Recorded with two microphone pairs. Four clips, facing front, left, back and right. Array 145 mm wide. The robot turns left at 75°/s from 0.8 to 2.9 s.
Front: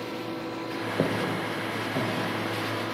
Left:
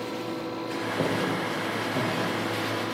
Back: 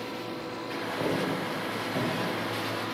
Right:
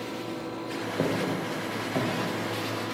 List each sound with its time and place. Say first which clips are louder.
1.0 s footsteps: even, front 1 dB; 20° right, 1.9 m; by 2.1 s 95° right, 2.5 m